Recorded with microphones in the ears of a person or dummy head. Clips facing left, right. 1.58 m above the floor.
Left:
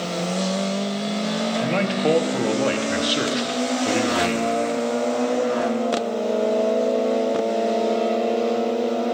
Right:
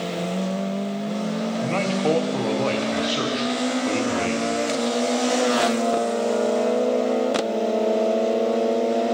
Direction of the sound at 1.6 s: 15° left (ahead or behind).